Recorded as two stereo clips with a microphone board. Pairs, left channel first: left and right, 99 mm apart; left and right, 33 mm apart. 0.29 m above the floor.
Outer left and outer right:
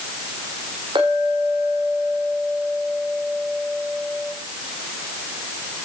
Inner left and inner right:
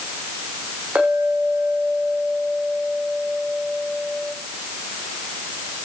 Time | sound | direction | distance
0.9 | a clink | 55° right (ahead or behind) | 8 m